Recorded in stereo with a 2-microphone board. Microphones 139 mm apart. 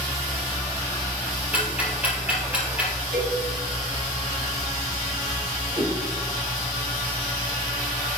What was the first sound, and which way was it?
Ticking, 10° right (ahead or behind).